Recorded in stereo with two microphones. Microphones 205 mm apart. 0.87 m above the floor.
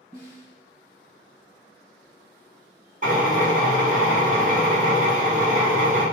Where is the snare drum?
45° right (ahead or behind), 1.7 m.